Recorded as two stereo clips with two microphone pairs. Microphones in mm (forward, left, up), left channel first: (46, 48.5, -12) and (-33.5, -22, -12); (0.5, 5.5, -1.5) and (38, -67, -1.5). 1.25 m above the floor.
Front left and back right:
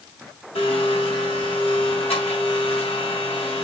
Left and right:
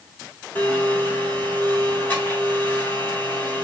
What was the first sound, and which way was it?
A blender, 50° left.